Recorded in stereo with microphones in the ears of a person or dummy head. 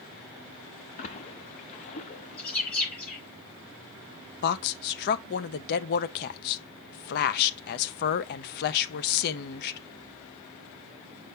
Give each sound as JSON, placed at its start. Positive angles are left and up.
{"t": 1.0, "sound": "a splash", "side_deg": 40, "distance_m": 1.0}
{"t": 2.4, "sound": "a bird", "side_deg": 50, "distance_m": 3.5}
{"t": 4.4, "sound": "a woman speaking", "side_deg": 55, "distance_m": 0.7}